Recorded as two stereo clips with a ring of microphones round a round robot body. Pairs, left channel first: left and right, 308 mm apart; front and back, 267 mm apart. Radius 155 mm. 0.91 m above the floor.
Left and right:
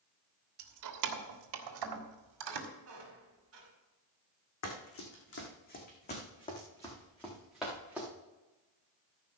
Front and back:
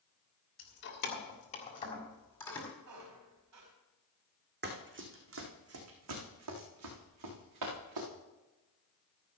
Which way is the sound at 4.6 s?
130° left.